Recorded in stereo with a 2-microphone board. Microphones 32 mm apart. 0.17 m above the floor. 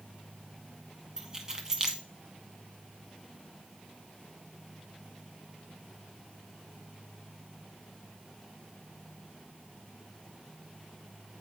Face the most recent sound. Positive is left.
turn(degrees=-25)  # may be behind; listen again after turning